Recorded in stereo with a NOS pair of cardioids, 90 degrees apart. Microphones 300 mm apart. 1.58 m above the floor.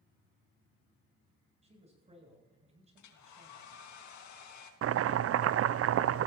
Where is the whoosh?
No whoosh in this recording.